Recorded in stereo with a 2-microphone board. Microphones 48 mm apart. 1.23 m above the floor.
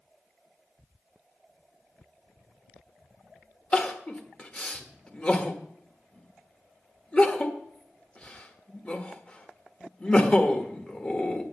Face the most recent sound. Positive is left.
turn(degrees=25)  # may be behind; listen again after turning